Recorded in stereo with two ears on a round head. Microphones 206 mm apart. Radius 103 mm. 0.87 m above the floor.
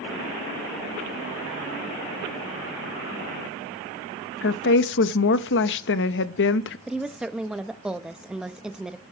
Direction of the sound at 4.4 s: 55° left (ahead or behind).